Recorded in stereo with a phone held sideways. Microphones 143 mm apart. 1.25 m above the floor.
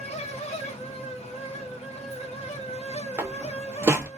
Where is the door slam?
15° right (ahead or behind), 0.5 m.